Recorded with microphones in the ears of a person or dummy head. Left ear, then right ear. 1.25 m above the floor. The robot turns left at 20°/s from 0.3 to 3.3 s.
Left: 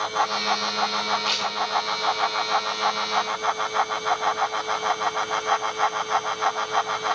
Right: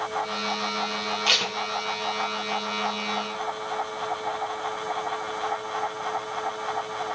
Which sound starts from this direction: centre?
Tape being pulled, at 1.3 s.